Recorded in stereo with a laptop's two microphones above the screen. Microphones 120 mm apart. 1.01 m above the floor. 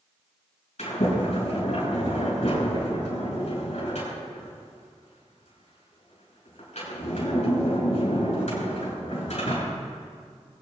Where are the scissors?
No scissors in this recording.